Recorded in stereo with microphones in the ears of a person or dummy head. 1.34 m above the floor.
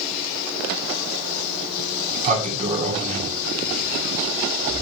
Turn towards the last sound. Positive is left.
turn(degrees=-35)  # may be behind; listen again after turning